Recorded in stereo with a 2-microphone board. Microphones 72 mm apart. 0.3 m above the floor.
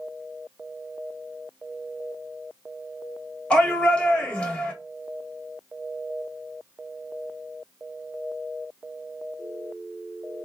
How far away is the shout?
About 1.2 m.